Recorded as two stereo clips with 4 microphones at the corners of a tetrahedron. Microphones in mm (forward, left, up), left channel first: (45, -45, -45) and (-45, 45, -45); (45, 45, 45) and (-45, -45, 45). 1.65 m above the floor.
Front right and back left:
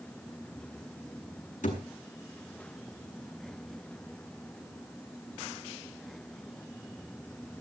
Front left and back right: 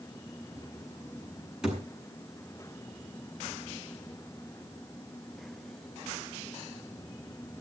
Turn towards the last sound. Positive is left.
turn(degrees=-50)